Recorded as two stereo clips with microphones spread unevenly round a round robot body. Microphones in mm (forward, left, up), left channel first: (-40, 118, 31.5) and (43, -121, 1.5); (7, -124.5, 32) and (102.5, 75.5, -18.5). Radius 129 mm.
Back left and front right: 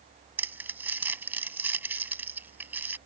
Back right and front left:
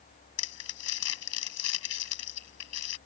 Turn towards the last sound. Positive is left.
turn(degrees=-155)